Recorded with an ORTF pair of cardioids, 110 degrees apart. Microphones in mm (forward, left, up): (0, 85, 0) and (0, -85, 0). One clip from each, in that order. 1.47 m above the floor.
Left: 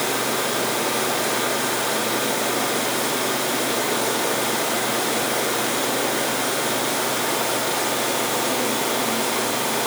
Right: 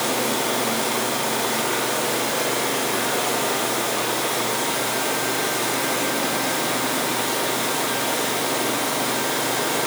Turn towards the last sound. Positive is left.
No sound to turn to.